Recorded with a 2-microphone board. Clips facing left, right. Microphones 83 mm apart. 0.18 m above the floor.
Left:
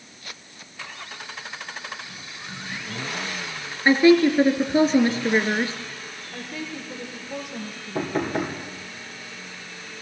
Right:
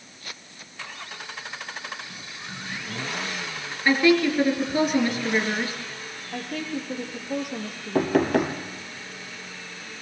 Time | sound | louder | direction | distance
3.9 | a woman speaking | left 4 dB | 30° left (ahead or behind) | 3 m
6.3 | a woman speaking | right 4 dB | 65° right (ahead or behind) | 4.5 m
8.0 | knocking | right 5 dB | 65° right (ahead or behind) | 3 m